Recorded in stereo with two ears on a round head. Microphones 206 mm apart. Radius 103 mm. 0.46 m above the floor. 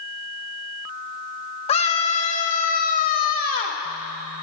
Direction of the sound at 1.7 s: 25° left (ahead or behind).